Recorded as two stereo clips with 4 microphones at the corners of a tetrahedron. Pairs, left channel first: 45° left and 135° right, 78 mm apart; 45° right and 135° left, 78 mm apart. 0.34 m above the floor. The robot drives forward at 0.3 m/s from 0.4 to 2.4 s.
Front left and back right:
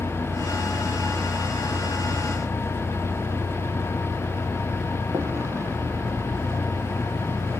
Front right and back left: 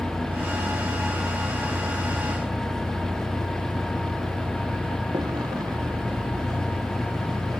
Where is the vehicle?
165° left; by 7.6 s 170° left.